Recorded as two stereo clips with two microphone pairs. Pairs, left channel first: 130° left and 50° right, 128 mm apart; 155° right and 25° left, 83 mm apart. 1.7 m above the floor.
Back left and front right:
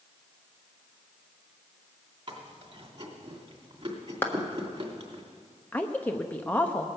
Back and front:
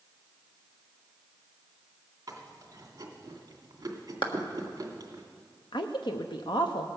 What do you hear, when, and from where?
2.3 s chewing: 20° right, 2.5 m
4.2 s a clap: 160° right, 1.4 m
5.7 s a woman speaking: 155° right, 0.7 m